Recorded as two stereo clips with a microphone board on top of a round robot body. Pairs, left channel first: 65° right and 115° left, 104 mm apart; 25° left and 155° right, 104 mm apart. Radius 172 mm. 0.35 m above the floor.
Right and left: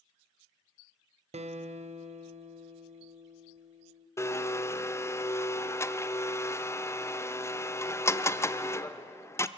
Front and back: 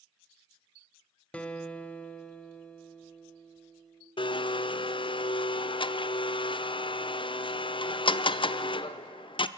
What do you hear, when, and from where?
1.3 s a guitar: 100° left, 1.2 m
4.2 s a blender: 5° right, 0.8 m